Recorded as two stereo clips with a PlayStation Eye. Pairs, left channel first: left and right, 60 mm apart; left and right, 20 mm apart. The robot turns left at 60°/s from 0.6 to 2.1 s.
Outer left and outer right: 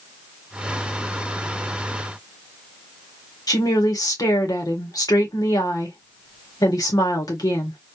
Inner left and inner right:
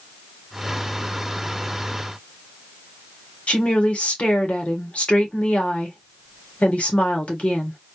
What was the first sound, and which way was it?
A woman speaking, 80° left.